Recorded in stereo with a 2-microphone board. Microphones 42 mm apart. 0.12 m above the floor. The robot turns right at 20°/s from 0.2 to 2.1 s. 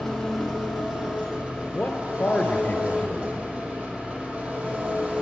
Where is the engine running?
175° left, 2 m; by 5.2 s 145° right, 2 m.